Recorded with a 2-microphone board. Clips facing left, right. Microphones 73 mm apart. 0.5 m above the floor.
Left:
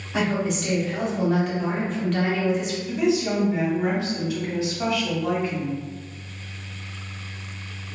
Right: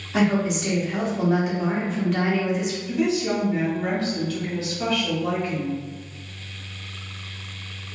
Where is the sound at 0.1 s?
5° right (ahead or behind), 0.7 m.